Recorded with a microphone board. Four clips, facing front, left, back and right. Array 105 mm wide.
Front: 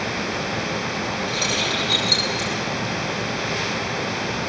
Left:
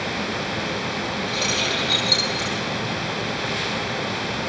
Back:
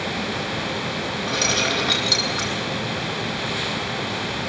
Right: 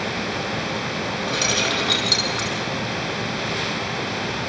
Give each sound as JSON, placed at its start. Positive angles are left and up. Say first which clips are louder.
{"t": 1.3, "sound": "keys jangling", "louder": "right 2 dB, back 1 dB", "azimuth_deg": -135, "distance_m": 4.0}